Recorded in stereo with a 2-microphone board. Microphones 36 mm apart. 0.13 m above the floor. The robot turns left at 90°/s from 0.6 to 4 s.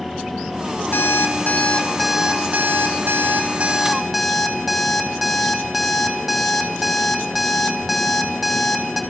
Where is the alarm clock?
105° left, 2.5 m; by 9.0 s 175° right, 2.5 m.